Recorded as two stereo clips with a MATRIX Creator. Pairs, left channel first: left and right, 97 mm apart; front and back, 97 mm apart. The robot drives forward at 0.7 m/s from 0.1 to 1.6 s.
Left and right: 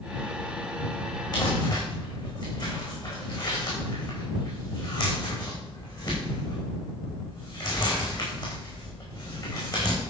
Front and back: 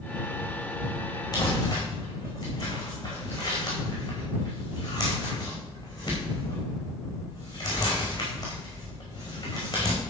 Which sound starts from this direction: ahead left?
Crumpling, at 1.3 s.